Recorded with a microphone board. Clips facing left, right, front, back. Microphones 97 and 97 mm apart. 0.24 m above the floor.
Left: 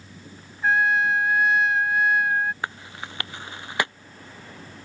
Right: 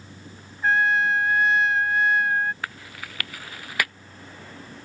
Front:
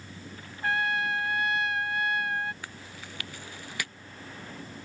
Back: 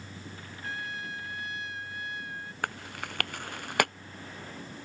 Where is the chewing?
155° left.